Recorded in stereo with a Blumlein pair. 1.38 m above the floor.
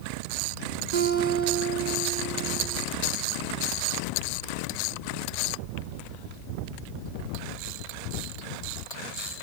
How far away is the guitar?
About 4.5 m.